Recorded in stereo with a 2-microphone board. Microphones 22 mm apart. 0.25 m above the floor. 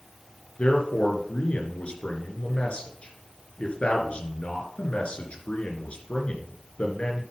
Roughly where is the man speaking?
Left.